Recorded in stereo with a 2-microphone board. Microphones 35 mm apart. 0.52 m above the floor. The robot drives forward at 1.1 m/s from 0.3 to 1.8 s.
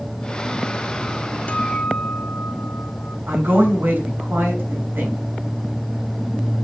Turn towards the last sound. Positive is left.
turn(degrees=-80)